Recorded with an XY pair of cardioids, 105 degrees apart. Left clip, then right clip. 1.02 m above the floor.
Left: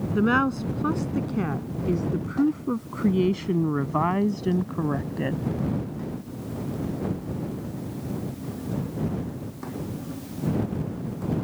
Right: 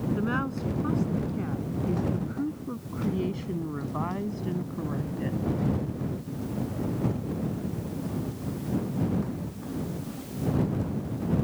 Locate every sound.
0.1 s a woman speaking: 55° left